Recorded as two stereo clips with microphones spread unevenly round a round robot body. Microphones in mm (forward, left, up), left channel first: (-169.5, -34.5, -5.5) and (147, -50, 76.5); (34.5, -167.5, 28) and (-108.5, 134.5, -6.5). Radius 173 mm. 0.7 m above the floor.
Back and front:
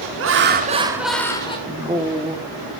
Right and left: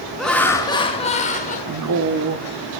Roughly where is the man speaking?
Left.